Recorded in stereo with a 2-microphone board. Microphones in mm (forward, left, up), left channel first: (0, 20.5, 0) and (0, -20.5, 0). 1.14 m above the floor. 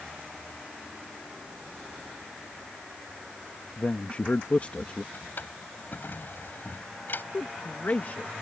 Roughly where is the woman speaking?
Left.